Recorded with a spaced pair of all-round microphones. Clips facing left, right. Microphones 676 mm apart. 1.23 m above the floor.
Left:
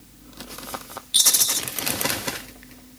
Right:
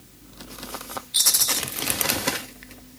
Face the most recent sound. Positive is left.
turn(degrees=60)  # may be behind; listen again after turning